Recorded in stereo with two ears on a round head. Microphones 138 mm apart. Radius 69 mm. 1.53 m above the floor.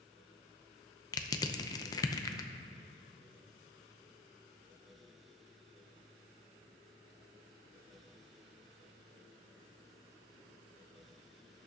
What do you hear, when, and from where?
1.1 s crushing: 25° left (ahead or behind), 0.6 m